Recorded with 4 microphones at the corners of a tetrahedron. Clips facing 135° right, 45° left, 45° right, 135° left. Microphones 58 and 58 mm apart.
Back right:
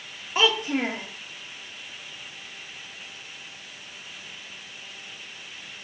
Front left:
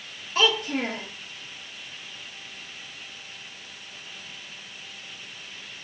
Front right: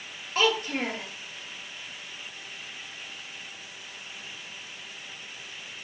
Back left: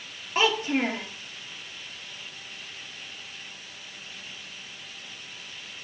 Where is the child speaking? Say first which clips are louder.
Back right 1 dB, back left 2 dB; straight behind, 0.6 m.